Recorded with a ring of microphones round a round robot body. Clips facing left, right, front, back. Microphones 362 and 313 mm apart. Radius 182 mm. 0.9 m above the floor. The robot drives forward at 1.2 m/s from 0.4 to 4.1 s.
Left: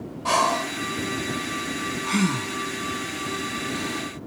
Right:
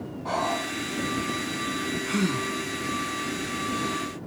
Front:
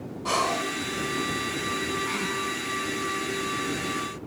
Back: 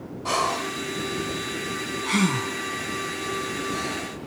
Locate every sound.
0.2 s breathing: 90° left; by 4.1 s 170° left